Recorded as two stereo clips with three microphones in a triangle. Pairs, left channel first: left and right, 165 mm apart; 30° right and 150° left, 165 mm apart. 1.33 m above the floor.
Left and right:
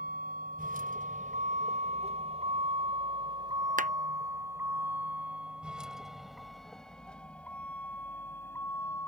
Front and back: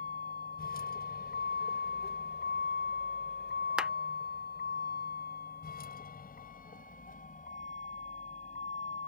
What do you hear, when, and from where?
0.0 s a vehicle: 60° right; by 9.1 s 15° left
3.8 s a clap: 125° right